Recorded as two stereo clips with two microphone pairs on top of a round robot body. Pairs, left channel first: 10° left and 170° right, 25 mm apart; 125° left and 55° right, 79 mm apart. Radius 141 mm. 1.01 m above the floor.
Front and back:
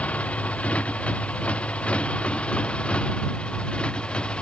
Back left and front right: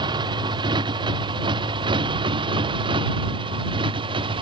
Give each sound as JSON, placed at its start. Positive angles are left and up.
{"t": 0.0, "sound": "a motorcycle", "azimuth_deg": -25}